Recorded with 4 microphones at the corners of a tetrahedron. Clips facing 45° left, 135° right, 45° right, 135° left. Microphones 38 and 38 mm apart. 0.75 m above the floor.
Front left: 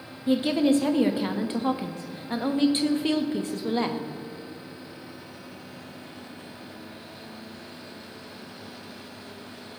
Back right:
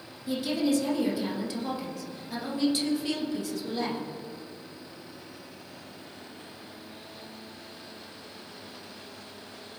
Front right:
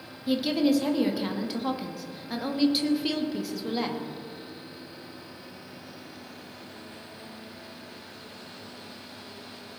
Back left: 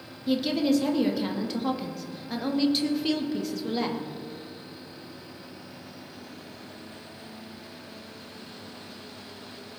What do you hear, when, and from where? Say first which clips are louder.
0.3 s a woman speaking: front left 5 dB, even; 40° left, 1.3 m